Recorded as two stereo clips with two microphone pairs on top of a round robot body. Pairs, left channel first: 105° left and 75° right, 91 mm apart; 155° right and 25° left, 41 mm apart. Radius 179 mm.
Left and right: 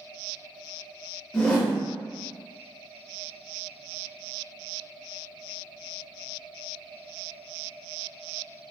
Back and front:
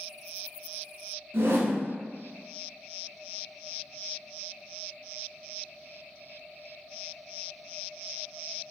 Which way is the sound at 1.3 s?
30° left.